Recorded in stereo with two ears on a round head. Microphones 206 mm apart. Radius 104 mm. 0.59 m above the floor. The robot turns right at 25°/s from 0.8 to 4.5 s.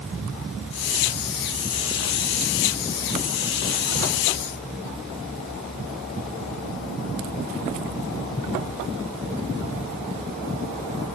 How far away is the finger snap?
I don't hear a finger snap.